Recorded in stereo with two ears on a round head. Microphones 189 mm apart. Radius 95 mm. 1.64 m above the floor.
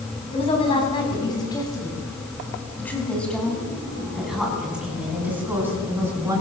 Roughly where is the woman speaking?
Left.